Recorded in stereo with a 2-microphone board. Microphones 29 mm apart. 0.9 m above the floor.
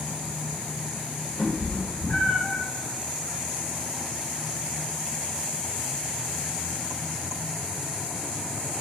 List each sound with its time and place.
1.4 s a cat meowing: 50° left (ahead or behind), 1.8 m